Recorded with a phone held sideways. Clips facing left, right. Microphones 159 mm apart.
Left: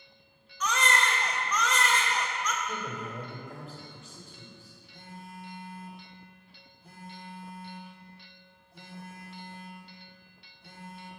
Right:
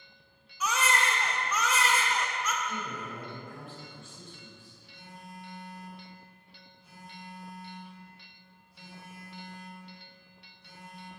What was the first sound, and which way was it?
A baby crying, 10° right (ahead or behind).